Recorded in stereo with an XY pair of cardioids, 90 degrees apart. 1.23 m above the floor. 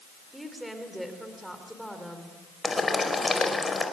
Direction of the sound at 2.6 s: 30° left.